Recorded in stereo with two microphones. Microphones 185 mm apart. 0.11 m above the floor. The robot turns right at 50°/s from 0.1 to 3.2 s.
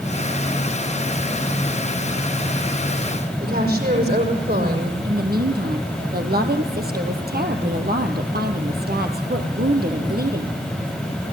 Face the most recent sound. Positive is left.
turn(degrees=-55)  # may be behind; listen again after turning